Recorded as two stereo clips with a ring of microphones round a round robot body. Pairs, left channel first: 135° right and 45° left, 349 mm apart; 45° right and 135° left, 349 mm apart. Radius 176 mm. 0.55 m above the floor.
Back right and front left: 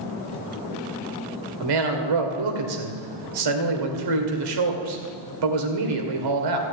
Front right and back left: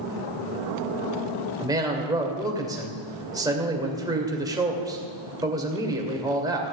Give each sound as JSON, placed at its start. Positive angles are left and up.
{"t": 1.6, "sound": "a man speaking", "azimuth_deg": 55, "distance_m": 2.5}